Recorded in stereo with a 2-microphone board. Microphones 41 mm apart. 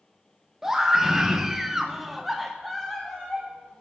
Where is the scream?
10° right (ahead or behind), 1.0 m; by 3.8 s 5° left (ahead or behind), 1.1 m.